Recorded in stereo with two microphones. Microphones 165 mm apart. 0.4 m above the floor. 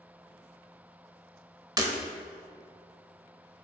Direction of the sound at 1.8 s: 25° right (ahead or behind).